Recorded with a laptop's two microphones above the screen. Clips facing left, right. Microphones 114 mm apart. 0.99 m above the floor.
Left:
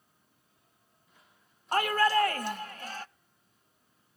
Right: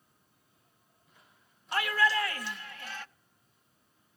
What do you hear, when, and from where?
1.7 s a shout: 45° left (ahead or behind), 0.9 m; by 3.0 s 35° left (ahead or behind), 0.9 m